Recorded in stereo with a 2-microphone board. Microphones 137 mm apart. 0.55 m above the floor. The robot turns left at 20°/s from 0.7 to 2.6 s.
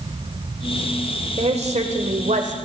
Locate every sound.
1.4 s a woman speaking: 50° right (ahead or behind), 1.7 m; by 2.5 s 65° right (ahead or behind), 1.7 m